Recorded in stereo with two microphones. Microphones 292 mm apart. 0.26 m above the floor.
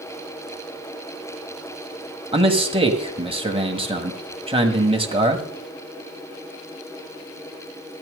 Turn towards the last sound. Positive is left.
turn(degrees=-20)  # may be behind; listen again after turning